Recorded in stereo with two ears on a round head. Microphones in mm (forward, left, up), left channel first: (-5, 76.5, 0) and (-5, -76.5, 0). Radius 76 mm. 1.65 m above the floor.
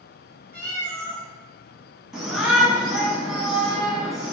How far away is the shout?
About 2.0 m.